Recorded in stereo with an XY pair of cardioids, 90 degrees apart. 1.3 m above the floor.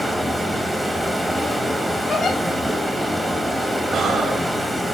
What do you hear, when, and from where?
0.0 s running water: 10° right, 1.9 m
2.1 s a giggle: 45° left, 4 m
3.9 s breathing: 70° right, 2 m